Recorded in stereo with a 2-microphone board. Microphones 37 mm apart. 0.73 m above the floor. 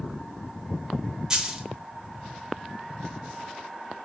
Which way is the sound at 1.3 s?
20° right (ahead or behind).